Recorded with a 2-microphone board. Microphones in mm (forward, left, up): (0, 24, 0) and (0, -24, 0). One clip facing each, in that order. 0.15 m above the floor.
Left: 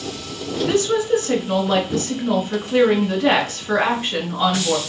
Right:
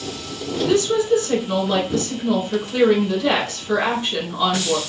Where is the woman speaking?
30° left (ahead or behind), 1.5 m.